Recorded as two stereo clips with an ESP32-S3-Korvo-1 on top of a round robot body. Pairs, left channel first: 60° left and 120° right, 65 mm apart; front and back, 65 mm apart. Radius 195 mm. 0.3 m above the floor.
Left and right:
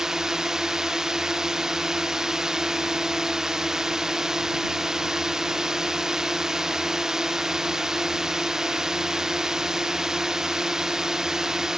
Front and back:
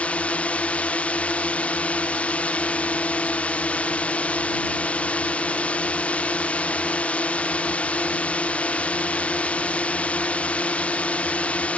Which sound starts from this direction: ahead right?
A drone, at 0.0 s.